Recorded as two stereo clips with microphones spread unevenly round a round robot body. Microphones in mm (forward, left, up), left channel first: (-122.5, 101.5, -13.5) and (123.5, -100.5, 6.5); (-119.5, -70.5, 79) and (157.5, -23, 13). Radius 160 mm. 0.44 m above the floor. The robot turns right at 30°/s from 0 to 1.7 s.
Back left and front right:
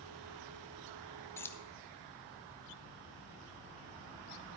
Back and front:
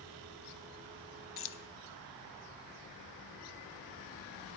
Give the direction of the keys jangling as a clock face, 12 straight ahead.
5 o'clock.